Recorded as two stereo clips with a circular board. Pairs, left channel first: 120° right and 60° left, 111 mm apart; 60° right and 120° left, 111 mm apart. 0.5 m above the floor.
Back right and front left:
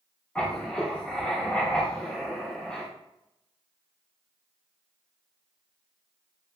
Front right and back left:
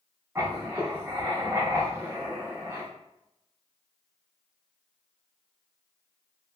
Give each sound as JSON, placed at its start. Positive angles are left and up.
{"t": 0.3, "sound": "writing", "azimuth_deg": 170, "distance_m": 1.1}